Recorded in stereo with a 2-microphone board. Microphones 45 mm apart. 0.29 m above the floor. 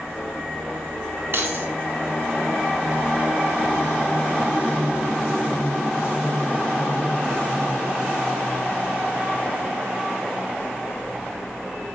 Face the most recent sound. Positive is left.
turn(degrees=-60)  # may be behind; listen again after turning